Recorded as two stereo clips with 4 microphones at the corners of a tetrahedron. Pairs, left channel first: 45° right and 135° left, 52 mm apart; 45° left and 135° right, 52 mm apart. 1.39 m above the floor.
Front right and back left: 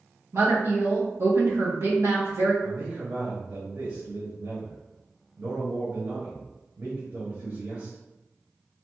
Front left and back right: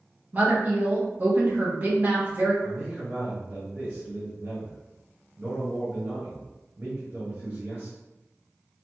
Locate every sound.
0.3 s a woman speaking: 170° left, 1.3 m
2.6 s a man speaking: 160° left, 1.3 m